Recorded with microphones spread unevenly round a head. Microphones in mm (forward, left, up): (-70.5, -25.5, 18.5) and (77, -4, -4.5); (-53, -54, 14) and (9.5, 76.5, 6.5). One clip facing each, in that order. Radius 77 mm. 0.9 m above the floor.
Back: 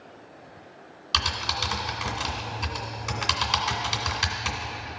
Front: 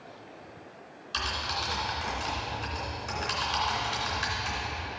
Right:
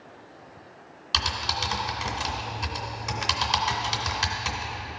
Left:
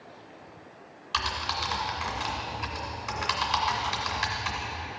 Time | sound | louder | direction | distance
1.1 | typing on a keyboard | back 3 dB, right 1 dB | 160° right | 2 m